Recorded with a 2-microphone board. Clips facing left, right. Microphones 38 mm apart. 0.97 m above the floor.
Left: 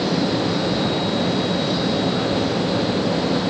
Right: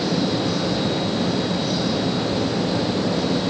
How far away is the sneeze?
I don't hear a sneeze.